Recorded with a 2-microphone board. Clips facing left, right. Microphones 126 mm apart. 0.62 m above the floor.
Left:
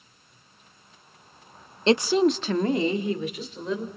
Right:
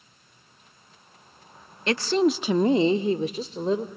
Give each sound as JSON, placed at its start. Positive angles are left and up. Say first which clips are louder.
{"t": 1.9, "sound": "a woman speaking", "louder": "left 2 dB", "side_deg": 25, "distance_m": 0.7}